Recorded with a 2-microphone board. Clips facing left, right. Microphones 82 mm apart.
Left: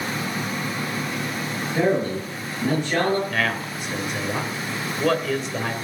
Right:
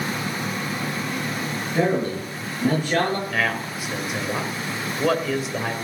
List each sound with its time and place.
1.7 s a man speaking: 10° right (ahead or behind), 7.5 m
3.3 s a man speaking: 5° right (ahead or behind), 2 m